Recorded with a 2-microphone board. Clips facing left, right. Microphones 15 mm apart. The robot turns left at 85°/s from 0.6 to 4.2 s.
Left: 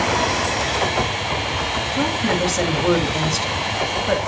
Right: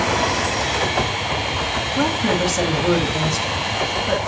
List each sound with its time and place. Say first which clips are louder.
2.0 s a woman speaking: right 1 dB; 20° right (ahead or behind), 1.3 m; by 4.2 s 20° left (ahead or behind), 1.3 m